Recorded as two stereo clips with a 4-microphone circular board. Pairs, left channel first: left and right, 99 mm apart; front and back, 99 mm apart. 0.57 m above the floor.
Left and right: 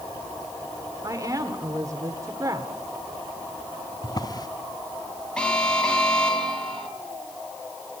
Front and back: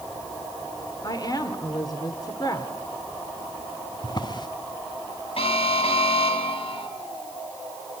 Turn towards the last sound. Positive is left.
turn(degrees=10)